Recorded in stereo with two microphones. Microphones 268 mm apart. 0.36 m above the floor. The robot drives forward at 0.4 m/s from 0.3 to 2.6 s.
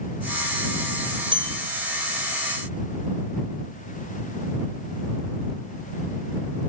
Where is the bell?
15° right (ahead or behind), 0.7 m.